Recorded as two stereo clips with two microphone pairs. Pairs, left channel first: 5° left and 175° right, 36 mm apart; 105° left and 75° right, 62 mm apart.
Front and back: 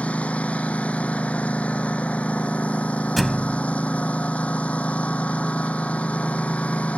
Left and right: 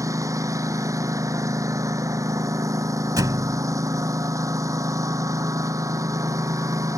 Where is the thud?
85° right.